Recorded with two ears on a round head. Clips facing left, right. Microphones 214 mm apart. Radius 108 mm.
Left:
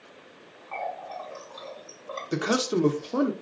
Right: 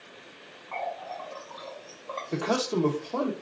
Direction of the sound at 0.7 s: 20° left (ahead or behind).